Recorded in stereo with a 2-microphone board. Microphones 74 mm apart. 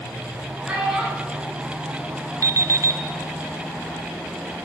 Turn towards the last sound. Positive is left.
turn(degrees=-50)  # may be behind; listen again after turning